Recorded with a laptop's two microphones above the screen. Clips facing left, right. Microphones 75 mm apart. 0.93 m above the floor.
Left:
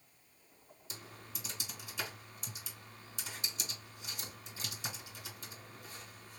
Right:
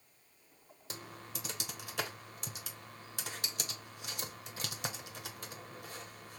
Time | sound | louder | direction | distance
0.9 | typing on a keyboard | right 4 dB | 65° right (ahead or behind) | 1.1 m